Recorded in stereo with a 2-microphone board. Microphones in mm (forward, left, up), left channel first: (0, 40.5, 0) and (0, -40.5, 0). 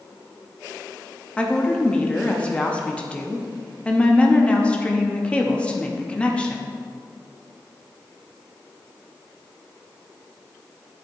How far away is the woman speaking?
About 0.6 m.